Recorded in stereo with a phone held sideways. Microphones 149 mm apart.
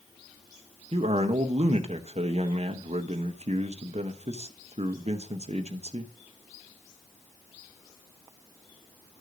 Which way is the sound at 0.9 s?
50° right (ahead or behind).